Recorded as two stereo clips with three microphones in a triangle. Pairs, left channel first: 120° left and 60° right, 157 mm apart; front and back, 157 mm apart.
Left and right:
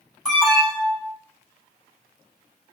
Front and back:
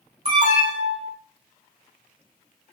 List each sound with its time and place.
0.2 s an alarm: 155° right, 2.5 m